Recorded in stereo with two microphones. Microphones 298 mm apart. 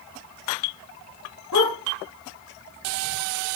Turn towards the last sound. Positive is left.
turn(degrees=75)  # may be behind; listen again after turning